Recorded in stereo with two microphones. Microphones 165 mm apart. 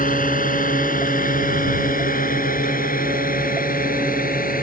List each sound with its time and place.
0.0 s a drone: 55° left (ahead or behind); by 4.6 s 60° left (ahead or behind)